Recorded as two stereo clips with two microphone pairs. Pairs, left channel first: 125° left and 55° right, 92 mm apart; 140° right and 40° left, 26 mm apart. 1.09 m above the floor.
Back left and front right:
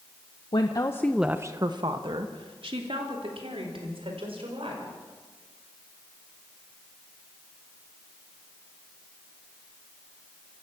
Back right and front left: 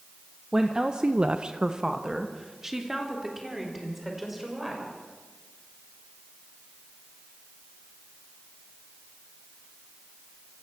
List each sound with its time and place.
0.5 s a woman speaking: 105° left, 1.2 m; by 4.9 s 45° right, 6 m